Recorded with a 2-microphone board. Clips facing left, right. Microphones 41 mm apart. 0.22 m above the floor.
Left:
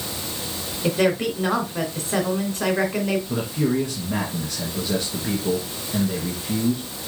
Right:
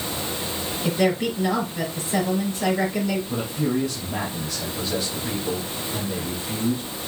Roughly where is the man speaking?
Left.